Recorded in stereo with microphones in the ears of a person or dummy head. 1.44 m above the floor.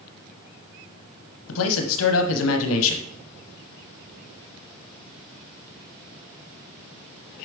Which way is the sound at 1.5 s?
75° left (ahead or behind).